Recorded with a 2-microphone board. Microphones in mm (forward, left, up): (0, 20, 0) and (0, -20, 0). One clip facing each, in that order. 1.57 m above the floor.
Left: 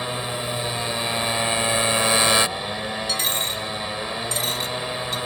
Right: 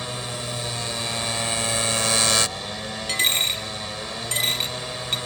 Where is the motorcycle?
15° left (ahead or behind).